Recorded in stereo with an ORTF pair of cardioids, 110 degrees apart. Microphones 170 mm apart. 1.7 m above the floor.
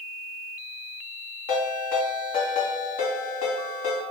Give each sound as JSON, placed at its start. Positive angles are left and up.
{"t": 1.5, "sound": "a ringtone", "azimuth_deg": 60, "distance_m": 2.0}